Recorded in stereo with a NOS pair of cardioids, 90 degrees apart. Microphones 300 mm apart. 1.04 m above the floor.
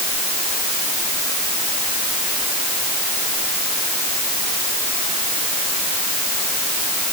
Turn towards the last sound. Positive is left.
No sound to turn to.